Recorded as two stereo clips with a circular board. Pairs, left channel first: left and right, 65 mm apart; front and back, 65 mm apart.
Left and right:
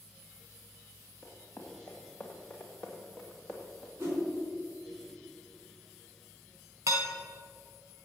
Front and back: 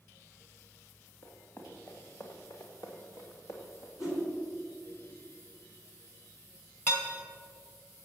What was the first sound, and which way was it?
Running footsteps, 40° left.